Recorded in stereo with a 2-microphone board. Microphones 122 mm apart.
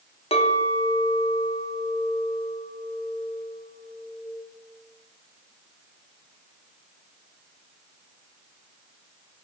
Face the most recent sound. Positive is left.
turn(degrees=55)  # may be behind; listen again after turning